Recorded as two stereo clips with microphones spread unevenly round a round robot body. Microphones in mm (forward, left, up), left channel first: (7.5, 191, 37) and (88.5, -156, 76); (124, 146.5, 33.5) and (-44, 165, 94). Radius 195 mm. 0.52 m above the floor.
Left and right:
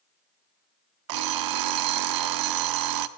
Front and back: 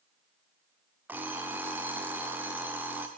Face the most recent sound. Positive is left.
turn(degrees=-90)